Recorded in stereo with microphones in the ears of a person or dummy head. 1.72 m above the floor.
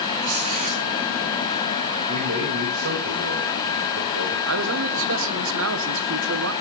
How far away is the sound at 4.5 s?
About 1.5 m.